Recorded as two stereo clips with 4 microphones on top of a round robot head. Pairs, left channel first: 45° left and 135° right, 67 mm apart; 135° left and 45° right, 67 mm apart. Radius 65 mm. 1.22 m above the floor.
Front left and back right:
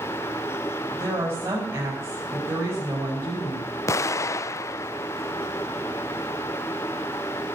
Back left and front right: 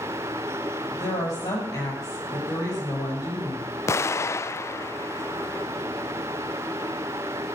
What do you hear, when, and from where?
0.9 s a woman speaking: 165° left, 8 m
3.9 s an explosion: 90° left, 0.6 m